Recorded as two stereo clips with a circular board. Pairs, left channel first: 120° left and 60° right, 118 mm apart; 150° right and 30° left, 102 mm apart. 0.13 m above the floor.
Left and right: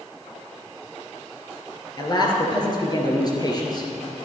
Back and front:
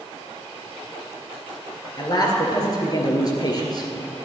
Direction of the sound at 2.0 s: 170° left.